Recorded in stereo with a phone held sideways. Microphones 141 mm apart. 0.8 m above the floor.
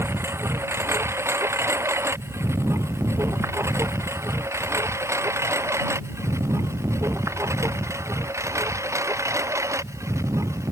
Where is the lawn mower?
20° right (ahead or behind).